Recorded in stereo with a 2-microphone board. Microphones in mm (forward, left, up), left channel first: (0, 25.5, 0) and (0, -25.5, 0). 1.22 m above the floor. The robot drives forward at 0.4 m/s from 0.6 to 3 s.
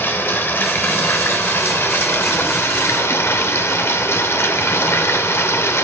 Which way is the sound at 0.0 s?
45° left (ahead or behind).